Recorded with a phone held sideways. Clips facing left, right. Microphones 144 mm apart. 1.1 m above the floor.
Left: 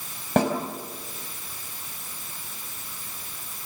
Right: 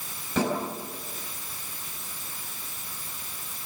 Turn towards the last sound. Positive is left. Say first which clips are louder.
# left 4 dB
turn(degrees=60)  # may be behind; listen again after turning